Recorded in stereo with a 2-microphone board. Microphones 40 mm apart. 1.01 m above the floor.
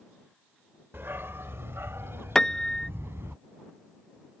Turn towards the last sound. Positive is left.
turn(degrees=10)  # may be behind; listen again after turning